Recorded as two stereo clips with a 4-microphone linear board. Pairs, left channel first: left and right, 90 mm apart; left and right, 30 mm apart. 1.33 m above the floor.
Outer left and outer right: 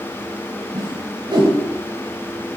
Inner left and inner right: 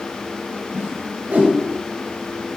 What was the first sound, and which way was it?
A whoosh, 50° right (ahead or behind).